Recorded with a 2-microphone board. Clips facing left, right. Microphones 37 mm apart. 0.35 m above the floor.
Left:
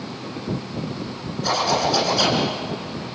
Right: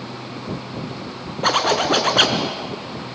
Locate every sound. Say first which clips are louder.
1.4 s a zipper: right 3 dB; 50° right (ahead or behind), 2.5 m